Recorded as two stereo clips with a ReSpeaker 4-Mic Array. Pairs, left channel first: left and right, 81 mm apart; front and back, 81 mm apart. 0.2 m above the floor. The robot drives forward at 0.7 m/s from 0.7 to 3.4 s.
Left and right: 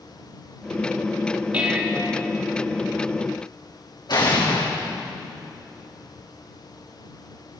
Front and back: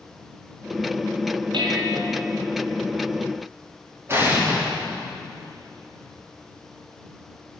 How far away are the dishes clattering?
About 4.5 m.